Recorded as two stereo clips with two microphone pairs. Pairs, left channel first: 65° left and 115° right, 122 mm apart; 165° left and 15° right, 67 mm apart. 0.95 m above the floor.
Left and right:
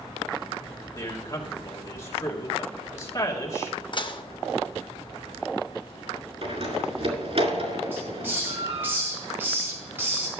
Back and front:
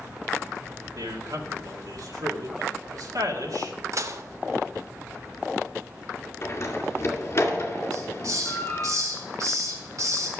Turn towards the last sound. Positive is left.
turn(degrees=-40)